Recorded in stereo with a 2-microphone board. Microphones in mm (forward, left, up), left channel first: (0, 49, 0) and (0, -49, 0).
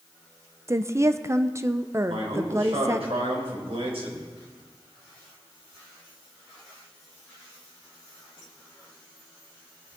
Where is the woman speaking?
30° right (ahead or behind), 0.6 m.